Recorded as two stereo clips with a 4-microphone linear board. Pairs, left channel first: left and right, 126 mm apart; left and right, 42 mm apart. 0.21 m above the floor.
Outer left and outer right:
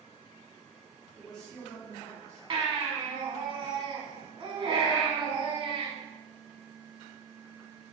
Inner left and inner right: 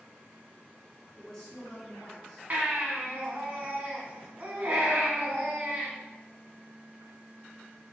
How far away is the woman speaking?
About 1.8 m.